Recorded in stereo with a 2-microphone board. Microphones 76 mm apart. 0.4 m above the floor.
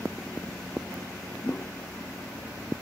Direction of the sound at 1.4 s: 30° left (ahead or behind).